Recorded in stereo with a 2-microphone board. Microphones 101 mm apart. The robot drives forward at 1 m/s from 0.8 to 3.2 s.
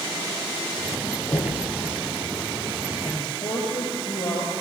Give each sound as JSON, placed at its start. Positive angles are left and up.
{"t": 1.3, "sound": "knocking", "side_deg": 45, "distance_m": 8.5}
{"t": 3.0, "sound": "a man speaking", "side_deg": 60, "distance_m": 8.5}